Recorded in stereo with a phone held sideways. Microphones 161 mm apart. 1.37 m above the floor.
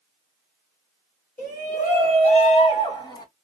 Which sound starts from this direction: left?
A shout, at 1.4 s.